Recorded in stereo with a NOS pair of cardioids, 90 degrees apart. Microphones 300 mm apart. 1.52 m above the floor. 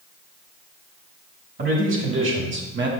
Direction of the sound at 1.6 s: 45° right.